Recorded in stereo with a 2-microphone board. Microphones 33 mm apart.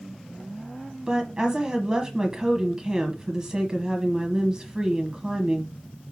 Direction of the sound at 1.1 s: 20° right (ahead or behind).